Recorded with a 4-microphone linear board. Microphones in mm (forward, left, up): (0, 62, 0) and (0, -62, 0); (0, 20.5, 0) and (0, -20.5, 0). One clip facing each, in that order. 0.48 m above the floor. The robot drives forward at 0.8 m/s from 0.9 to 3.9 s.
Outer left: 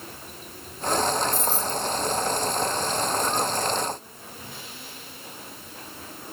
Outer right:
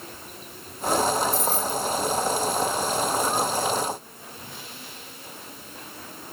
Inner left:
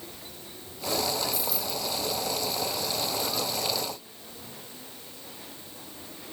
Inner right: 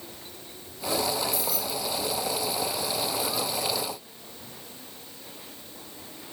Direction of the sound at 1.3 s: 75° right (ahead or behind).